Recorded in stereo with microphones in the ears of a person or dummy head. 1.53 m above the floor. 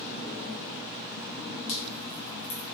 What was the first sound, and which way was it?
Dripping, 30° left (ahead or behind).